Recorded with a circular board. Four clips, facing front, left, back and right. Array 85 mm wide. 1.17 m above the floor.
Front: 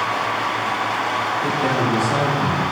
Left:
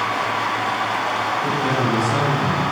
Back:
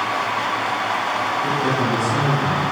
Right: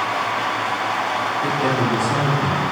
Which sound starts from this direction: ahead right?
A man speaking, at 1.4 s.